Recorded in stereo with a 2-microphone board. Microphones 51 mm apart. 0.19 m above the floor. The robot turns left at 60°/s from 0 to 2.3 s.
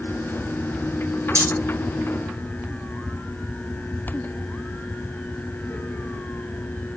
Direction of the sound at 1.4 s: 70° right (ahead or behind).